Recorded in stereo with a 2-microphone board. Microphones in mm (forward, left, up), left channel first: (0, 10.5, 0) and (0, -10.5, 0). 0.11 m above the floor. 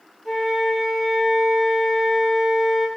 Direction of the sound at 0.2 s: 15° left (ahead or behind).